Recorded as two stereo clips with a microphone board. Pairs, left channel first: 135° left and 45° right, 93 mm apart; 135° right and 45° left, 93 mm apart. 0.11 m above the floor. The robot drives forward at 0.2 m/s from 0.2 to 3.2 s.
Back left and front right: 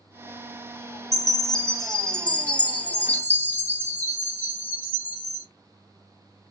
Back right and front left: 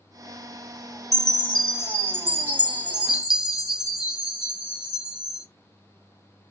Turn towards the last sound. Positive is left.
turn(degrees=105)